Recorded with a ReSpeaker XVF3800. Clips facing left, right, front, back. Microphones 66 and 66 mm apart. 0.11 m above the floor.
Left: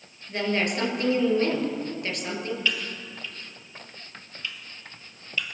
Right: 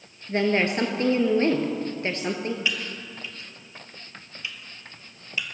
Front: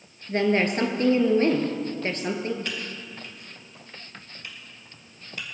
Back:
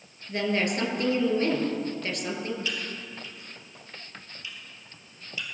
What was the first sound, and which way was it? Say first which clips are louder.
A woman speaking: right 4 dB, front 4 dB; 40° right.